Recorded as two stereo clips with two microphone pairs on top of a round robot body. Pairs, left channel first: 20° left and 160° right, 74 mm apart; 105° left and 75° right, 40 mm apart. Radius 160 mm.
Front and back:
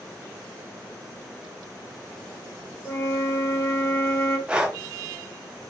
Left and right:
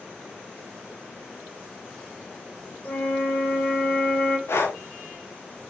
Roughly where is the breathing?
Behind left.